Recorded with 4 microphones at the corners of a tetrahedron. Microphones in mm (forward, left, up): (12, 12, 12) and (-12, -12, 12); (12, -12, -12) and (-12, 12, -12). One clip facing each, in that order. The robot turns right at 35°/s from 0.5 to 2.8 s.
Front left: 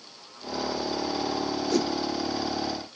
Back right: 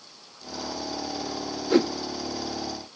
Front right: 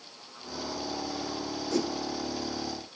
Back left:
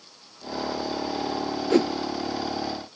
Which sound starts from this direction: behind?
A whoosh, at 1.7 s.